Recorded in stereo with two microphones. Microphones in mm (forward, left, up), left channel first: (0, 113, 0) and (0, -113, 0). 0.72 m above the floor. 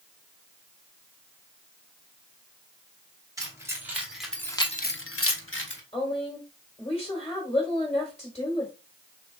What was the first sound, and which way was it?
Keys jangling, 15° right (ahead or behind).